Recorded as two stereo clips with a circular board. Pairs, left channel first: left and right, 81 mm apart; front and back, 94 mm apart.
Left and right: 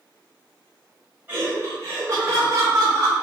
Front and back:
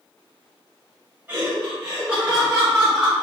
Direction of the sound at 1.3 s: 125° right.